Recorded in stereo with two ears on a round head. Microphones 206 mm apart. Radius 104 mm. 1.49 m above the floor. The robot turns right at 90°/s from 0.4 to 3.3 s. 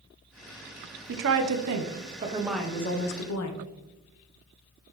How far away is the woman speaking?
About 0.8 m.